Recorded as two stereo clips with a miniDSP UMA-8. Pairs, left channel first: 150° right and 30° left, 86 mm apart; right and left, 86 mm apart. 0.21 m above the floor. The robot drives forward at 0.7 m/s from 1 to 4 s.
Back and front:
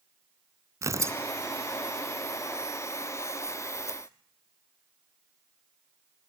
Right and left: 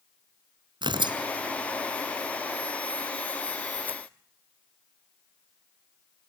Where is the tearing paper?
80° left, 0.9 m; by 4.0 s 160° left, 2 m.